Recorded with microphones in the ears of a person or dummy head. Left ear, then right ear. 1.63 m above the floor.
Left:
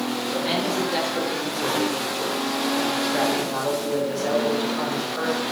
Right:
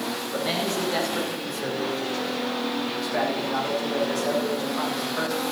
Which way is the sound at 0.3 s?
20° right (ahead or behind).